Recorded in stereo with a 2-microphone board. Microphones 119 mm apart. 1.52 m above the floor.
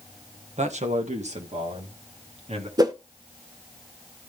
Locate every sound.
0.6 s a man speaking: 70° right (ahead or behind), 1.5 m; by 2.7 s 65° right (ahead or behind), 3.5 m
2.8 s a whoosh: 35° right (ahead or behind), 1.1 m